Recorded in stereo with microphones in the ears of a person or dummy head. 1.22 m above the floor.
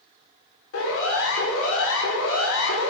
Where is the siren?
75° left (ahead or behind), 5 m.